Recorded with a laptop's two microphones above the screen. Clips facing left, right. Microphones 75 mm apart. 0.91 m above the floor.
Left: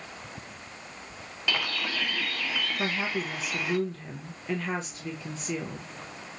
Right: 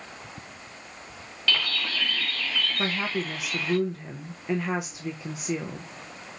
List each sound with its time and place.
1.5 s a bird: 15° left (ahead or behind), 0.7 m
2.8 s a woman speaking: 10° right (ahead or behind), 0.6 m